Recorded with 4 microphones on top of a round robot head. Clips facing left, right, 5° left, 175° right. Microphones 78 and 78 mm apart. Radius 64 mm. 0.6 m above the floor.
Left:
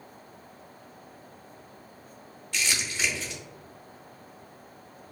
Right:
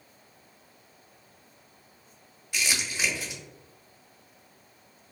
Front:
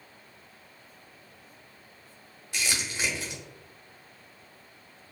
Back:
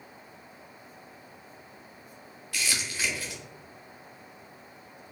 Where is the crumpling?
30° right, 0.8 m.